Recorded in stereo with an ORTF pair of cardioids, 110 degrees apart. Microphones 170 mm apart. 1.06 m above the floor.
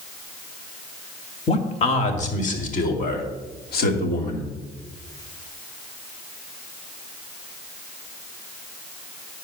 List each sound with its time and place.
1.5 s a man speaking: 35° left, 2 m; by 4.5 s 70° left, 2.5 m